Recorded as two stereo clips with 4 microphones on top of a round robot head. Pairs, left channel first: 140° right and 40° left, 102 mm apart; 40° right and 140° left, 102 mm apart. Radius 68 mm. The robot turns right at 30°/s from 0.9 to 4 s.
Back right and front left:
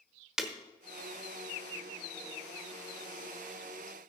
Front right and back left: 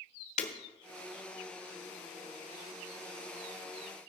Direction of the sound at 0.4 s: 45° right.